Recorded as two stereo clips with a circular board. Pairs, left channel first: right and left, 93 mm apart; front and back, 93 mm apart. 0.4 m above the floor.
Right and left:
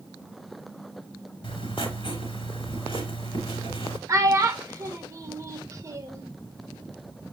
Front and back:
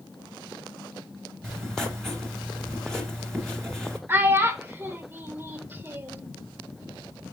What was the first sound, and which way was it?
Writing, 85° right.